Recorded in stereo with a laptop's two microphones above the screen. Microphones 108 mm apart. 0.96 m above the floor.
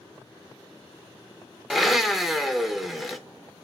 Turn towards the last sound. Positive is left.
turn(degrees=0)  # may be behind; listen again after turning